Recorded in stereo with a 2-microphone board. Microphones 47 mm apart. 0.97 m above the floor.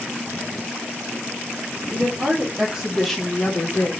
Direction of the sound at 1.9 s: 30° right (ahead or behind).